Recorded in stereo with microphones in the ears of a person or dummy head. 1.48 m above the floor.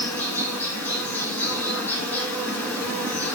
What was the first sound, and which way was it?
An insect, 15° left (ahead or behind).